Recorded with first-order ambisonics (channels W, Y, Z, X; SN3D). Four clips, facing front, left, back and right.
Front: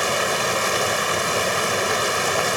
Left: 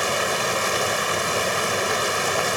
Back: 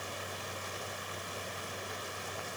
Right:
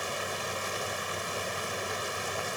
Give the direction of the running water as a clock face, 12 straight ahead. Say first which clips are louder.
Left 11 dB, front 20 dB; 11 o'clock.